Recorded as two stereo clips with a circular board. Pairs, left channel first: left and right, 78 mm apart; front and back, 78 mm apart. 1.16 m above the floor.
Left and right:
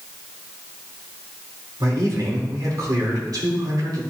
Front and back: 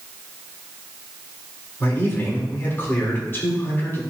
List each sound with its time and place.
1.8 s a man speaking: 60° right, 3 m